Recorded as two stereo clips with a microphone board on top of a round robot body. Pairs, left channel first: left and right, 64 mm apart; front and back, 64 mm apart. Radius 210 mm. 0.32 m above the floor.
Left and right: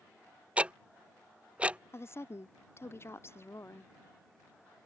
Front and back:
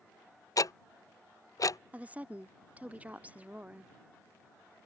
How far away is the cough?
I don't hear a cough.